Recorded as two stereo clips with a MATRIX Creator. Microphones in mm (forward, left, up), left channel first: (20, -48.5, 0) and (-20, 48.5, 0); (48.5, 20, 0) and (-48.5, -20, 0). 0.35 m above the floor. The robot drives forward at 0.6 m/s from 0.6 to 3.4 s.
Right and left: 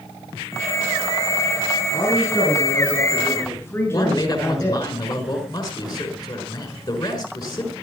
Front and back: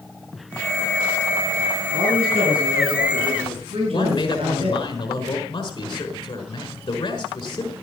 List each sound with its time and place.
1.9 s a man speaking: 125° right, 5.5 m; by 4.8 s 130° right, 6 m
3.9 s a man speaking: 25° right, 5 m